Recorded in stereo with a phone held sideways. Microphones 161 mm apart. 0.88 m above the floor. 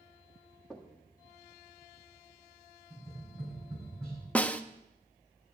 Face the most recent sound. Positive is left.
turn(degrees=10)  # may be behind; listen again after turning